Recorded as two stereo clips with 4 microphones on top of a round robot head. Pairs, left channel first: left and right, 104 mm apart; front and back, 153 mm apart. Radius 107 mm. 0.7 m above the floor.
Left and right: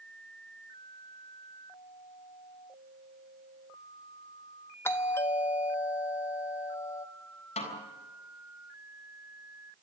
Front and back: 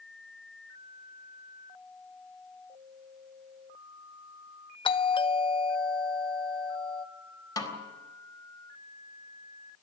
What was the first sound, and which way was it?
A doorbell, 35° left.